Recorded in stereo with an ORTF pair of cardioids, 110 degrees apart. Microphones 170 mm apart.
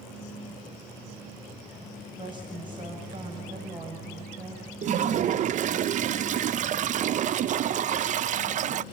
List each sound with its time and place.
2.2 s a woman speaking: 25° right, 7.5 m; by 4.7 s 35° right, 7 m
4.8 s a toilet flushing: 50° right, 0.5 m